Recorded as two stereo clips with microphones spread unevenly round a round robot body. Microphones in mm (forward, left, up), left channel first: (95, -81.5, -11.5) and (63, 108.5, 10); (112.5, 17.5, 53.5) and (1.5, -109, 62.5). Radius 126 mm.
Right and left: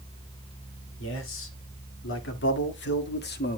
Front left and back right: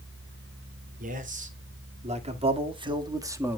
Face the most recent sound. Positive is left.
turn(degrees=-55)